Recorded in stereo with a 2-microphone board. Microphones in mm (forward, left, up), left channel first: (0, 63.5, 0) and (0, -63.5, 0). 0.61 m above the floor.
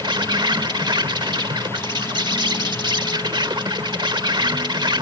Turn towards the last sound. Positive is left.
turn(degrees=-40)  # may be behind; listen again after turning